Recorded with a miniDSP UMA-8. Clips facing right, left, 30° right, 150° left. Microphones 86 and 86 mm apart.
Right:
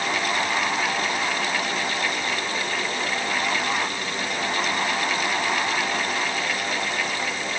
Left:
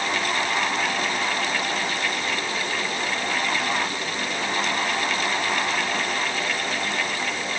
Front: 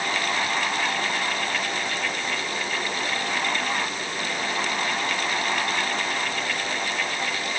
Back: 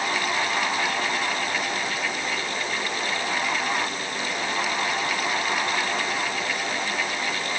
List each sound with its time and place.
Only background noise.